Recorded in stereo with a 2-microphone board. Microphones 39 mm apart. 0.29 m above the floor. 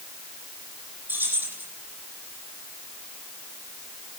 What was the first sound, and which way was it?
Keys jangling, 55° right (ahead or behind).